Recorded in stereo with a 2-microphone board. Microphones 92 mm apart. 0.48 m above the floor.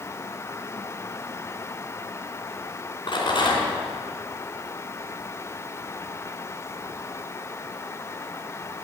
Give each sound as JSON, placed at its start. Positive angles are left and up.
{"t": 3.1, "sound": "a rattle", "side_deg": 60, "distance_m": 3.0}